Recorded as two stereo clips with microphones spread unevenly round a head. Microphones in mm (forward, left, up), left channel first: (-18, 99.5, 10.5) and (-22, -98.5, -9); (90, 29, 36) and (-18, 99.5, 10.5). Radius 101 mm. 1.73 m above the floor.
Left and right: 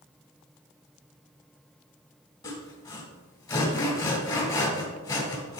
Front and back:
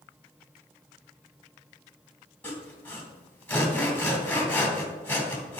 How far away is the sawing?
About 2.5 m.